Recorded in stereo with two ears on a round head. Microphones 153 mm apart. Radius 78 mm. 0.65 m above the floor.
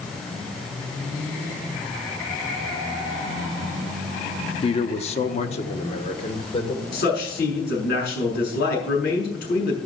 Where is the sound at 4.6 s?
35° left (ahead or behind), 0.7 m.